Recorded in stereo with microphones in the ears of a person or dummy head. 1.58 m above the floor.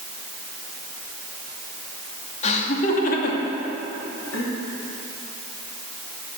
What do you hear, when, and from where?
2.4 s laughter: 40° left (ahead or behind), 2.5 m; by 4.5 s 80° left, 3 m